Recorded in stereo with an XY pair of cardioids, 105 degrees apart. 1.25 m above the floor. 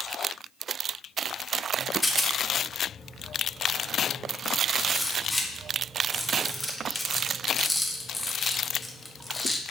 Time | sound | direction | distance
2.0 | a rattle | 15° left | 0.7 m